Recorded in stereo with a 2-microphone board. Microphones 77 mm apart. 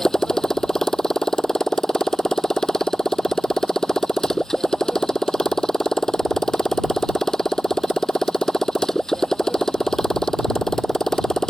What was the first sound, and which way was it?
A motorcycle, 10° left (ahead or behind).